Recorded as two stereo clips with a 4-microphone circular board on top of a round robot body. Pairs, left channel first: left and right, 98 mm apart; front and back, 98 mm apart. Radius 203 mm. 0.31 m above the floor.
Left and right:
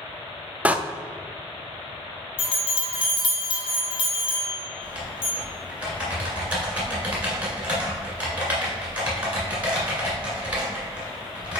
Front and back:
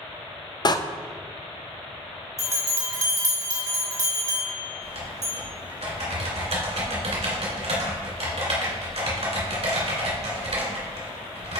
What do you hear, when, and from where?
0.7 s a door slam: 20° right, 0.7 m
2.4 s a bell: 125° left, 1.8 m
4.8 s typing on a keyboard: 170° right, 2 m